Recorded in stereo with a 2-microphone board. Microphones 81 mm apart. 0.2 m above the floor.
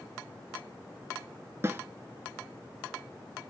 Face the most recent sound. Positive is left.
turn(degrees=-30)  # may be behind; listen again after turning